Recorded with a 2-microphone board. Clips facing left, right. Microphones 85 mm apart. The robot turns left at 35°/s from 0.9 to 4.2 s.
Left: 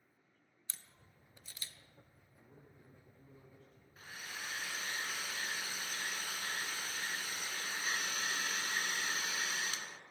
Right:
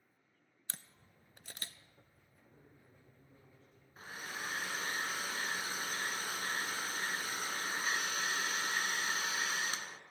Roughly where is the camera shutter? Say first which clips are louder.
Right 5 dB; right.